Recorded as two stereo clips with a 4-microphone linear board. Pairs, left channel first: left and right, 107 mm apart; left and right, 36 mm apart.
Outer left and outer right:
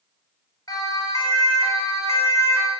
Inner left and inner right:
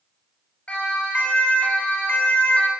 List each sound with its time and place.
0.7 s a siren: 35° left (ahead or behind), 7 m; by 2.7 s 25° left (ahead or behind), 4 m